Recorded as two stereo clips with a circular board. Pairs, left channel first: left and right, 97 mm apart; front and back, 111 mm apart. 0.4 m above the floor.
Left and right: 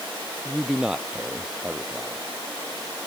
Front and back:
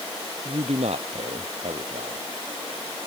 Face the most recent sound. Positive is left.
turn(degrees=-165)